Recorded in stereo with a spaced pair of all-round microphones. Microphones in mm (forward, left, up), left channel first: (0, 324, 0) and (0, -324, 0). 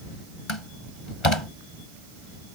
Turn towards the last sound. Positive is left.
turn(degrees=45)  # may be behind; listen again after turning